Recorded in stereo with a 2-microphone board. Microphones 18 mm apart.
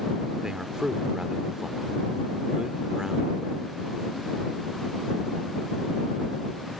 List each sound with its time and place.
0.4 s a man speaking: 40° right (ahead or behind)